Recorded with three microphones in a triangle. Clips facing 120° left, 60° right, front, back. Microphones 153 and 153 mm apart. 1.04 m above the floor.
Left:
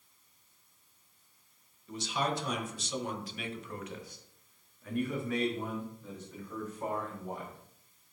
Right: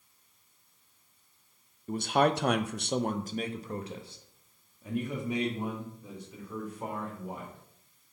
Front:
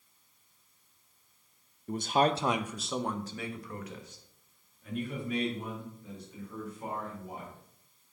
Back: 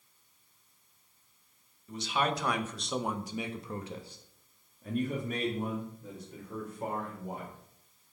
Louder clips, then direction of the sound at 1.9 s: Right 8 dB, front 5 dB; 25° right.